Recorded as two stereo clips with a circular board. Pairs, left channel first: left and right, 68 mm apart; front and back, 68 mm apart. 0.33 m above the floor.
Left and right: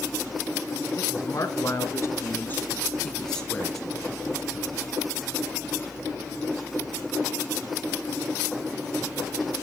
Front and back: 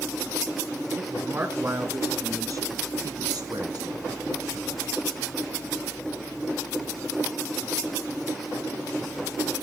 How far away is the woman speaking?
About 3.5 m.